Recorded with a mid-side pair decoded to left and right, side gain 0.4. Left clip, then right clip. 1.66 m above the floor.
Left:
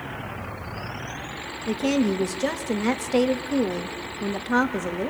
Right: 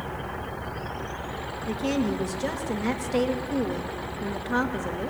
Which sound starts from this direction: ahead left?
A woman speaking, at 1.7 s.